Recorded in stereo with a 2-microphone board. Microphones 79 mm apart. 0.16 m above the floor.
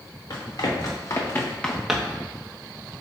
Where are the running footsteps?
60° left (ahead or behind), 1.7 m; by 2.2 s 30° right (ahead or behind), 0.9 m.